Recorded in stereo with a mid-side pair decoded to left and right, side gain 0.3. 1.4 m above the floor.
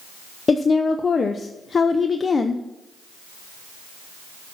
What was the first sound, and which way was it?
A woman speaking, 50° left.